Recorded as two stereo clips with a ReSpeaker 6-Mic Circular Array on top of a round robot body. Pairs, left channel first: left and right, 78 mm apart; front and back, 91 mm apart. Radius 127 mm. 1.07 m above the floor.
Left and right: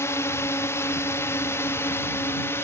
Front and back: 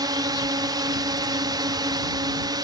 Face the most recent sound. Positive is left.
turn(degrees=145)